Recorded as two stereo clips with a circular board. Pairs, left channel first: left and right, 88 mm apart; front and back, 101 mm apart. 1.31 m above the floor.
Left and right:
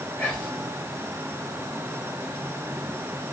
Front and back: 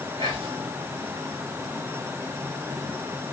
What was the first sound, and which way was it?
Whispering, 150° left.